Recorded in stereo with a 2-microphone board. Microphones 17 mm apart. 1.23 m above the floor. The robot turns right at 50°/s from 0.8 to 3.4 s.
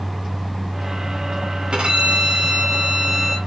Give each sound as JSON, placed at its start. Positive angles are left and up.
{"t": 1.7, "sound": "a violin", "azimuth_deg": -100, "distance_m": 2.5}